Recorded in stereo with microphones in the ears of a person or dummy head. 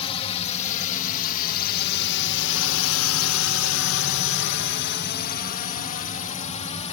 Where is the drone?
30° left (ahead or behind); by 6.9 s 35° left (ahead or behind).